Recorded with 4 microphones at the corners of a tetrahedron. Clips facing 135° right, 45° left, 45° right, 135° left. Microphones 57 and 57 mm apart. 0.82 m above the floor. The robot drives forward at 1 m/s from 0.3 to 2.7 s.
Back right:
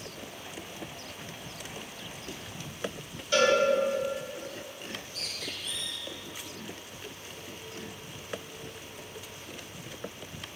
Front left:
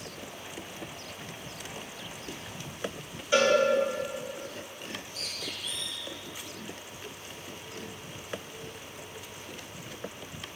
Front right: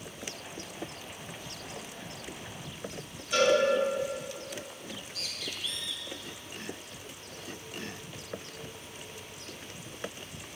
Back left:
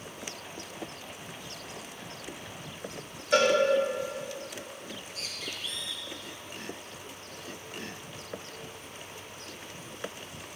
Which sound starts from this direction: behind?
A bird, at 4.8 s.